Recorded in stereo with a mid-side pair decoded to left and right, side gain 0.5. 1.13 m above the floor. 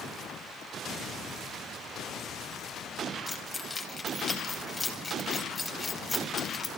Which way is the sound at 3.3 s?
25° left.